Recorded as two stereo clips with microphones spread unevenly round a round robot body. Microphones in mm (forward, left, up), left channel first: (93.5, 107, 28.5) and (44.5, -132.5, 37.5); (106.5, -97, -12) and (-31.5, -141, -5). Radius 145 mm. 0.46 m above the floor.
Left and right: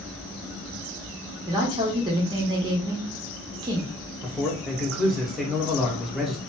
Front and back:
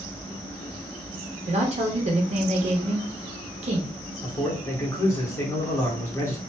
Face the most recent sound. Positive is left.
turn(degrees=-10)